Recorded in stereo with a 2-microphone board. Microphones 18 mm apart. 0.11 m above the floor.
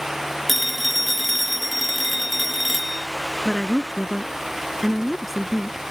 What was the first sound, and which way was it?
A phone ringing, centre (ahead or behind).